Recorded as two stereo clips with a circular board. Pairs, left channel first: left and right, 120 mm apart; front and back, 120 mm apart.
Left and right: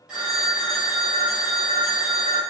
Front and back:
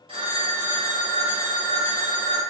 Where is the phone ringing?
170° right, 1.3 m.